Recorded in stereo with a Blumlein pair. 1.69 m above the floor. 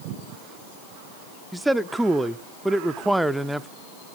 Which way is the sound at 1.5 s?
5° right.